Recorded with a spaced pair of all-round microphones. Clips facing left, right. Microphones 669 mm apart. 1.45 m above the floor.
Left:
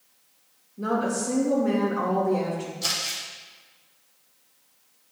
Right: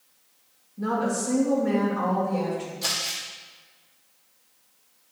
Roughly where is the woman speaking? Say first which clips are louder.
Even; right.